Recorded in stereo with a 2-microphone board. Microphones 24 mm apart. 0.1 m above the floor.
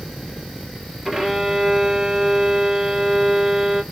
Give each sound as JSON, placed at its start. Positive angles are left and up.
{"t": 1.1, "sound": "a violin", "side_deg": -10, "distance_m": 1.6}